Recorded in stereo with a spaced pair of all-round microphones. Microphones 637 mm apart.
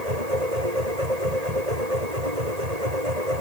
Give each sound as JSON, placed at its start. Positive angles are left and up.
{"t": 0.0, "sound": "a machine running", "side_deg": -75}